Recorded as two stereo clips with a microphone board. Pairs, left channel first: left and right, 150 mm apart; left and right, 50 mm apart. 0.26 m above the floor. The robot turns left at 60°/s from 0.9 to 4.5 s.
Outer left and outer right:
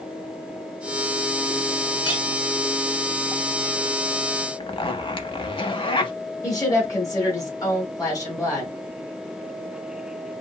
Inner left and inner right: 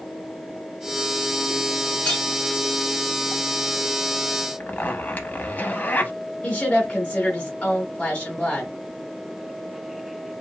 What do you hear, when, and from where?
2.0 s a clink: 35° left (ahead or behind), 1.3 m; by 2.2 s 40° left (ahead or behind), 1.3 m
4.6 s a zipper: 35° left (ahead or behind), 0.6 m
6.4 s a woman speaking: 20° left (ahead or behind), 1.2 m